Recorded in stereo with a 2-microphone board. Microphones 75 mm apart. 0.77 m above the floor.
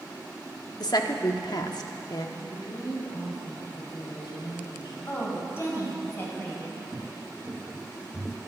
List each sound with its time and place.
0.8 s a woman speaking: 65° left (ahead or behind), 1.2 m
2.4 s a woman speaking: 75° left (ahead or behind), 4.5 m
5.1 s a woman speaking: 35° left (ahead or behind), 4 m
6.9 s footsteps: 35° right (ahead or behind), 1.8 m; by 8.4 s centre (ahead or behind), 1.1 m